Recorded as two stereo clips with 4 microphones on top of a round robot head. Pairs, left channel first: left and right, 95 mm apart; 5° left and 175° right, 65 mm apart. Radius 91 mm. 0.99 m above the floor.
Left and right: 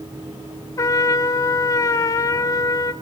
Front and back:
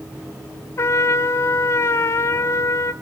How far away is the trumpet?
About 0.8 m.